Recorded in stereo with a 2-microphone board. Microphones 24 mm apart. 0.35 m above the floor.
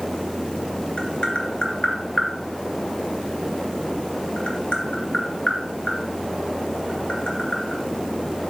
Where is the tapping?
50° left (ahead or behind), 2.5 m.